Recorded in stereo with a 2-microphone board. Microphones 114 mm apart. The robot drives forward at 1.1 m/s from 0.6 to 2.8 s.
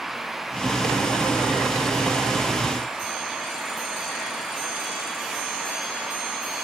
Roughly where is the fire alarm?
I don't hear a fire alarm.